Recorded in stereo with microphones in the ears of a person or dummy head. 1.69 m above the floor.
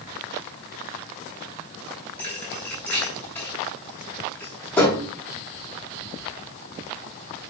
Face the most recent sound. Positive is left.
turn(degrees=10)  # may be behind; listen again after turning